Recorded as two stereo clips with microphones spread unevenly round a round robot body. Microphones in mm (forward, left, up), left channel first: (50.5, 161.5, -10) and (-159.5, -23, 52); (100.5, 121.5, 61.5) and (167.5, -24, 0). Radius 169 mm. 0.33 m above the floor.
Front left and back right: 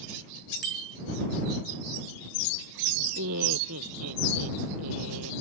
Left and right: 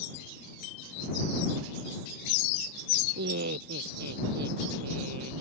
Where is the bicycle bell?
Straight behind.